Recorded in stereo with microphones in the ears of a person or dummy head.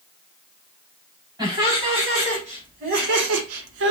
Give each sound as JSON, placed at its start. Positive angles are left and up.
{"t": 1.4, "sound": "laughter", "side_deg": -20, "distance_m": 3.0}